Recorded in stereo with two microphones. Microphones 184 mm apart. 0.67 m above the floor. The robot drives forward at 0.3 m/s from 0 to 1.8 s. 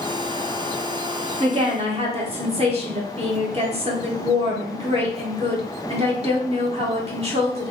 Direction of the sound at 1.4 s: 35° right (ahead or behind).